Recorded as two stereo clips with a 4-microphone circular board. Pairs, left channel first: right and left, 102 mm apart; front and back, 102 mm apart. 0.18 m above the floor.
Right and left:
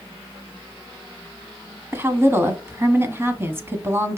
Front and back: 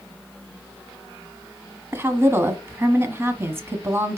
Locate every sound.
1.9 s a woman speaking: 135° left, 1.2 m